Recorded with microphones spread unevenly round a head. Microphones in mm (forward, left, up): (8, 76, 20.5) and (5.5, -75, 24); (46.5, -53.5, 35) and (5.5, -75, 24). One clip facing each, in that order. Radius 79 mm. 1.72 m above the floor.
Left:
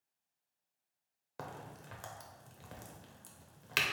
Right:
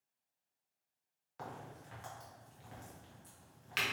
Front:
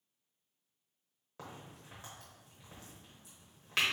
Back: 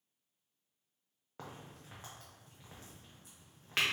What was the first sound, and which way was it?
A crack, 120° left.